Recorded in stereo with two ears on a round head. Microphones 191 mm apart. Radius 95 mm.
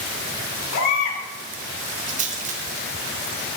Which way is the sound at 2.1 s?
35° right (ahead or behind).